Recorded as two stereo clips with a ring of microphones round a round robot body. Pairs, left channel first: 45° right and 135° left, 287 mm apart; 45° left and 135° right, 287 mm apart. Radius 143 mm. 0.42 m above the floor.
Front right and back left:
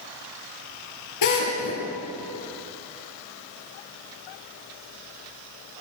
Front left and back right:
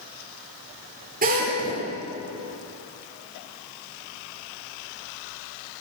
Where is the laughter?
No laughter in this recording.